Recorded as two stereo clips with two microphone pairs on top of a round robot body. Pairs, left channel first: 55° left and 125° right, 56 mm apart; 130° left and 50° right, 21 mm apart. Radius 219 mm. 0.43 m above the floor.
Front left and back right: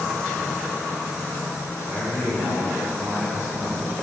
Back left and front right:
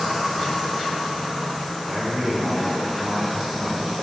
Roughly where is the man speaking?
Right.